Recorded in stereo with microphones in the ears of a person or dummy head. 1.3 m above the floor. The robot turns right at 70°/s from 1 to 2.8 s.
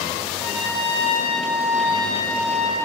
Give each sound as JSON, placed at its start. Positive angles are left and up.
{"t": 0.4, "sound": "a trumpet", "azimuth_deg": -30, "distance_m": 9.0}